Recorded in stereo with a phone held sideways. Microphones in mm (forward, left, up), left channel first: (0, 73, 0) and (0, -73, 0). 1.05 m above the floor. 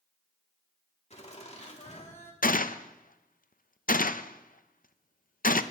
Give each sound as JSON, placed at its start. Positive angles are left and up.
{"t": 1.1, "sound": "laughter", "side_deg": 50, "distance_m": 2.5}
{"t": 2.4, "sound": "a gunshot", "side_deg": 75, "distance_m": 0.5}